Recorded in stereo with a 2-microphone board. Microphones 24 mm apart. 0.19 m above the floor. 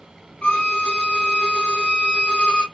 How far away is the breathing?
No breathing in this recording.